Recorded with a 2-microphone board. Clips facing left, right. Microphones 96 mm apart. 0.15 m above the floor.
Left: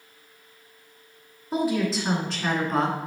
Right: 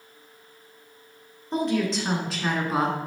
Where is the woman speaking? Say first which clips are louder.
Even; 10° left (ahead or behind), 2 m; by 3.0 s 10° right (ahead or behind), 1.7 m.